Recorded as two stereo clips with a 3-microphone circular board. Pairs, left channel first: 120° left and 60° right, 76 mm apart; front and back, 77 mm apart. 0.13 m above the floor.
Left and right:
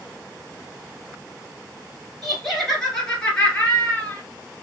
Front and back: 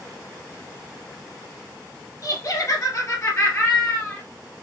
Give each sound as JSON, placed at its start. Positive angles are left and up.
{"t": 2.2, "sound": "laughter", "azimuth_deg": 30, "distance_m": 2.0}